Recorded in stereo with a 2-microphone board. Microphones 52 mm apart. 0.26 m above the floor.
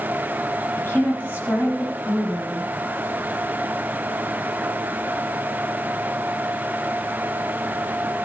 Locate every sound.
0.8 s a woman speaking: 30° left (ahead or behind), 6.5 m